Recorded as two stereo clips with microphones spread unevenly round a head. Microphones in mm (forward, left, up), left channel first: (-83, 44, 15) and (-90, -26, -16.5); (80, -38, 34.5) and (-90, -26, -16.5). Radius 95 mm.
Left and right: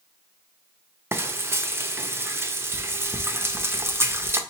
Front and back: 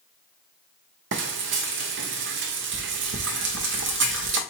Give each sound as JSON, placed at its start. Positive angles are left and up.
{"t": 1.1, "sound": "frying", "azimuth_deg": -165, "distance_m": 0.8}